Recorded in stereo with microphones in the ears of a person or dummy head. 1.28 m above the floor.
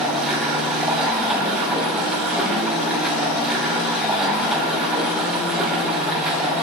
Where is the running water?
5° right (ahead or behind), 6 m.